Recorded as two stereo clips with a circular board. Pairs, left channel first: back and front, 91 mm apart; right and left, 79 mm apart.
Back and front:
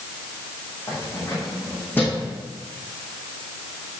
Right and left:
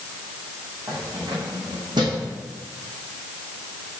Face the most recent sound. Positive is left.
turn(degrees=105)